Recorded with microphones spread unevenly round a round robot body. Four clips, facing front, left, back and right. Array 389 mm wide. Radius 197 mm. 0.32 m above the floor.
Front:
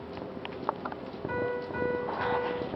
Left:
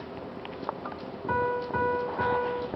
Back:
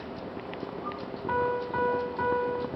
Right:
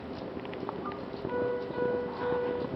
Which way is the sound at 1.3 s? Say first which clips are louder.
Left 4 dB, back 5 dB; 100° left.